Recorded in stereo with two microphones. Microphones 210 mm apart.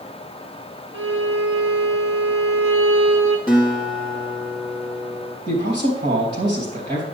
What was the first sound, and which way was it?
A violin, 75° right (ahead or behind).